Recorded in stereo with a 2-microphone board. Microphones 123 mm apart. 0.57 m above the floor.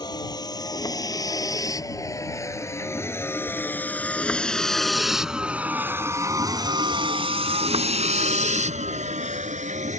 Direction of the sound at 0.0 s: 35° left (ahead or behind).